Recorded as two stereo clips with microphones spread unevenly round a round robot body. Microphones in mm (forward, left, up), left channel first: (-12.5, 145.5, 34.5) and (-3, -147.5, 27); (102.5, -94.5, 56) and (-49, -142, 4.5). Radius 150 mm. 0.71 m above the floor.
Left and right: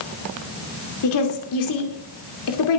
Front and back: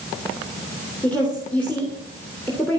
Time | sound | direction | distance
1.0 | a woman speaking | 110° left | 2.5 m